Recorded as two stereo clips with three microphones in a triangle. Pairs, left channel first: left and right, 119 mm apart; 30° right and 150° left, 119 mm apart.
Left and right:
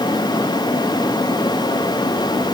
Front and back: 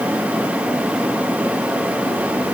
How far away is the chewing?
No chewing in this recording.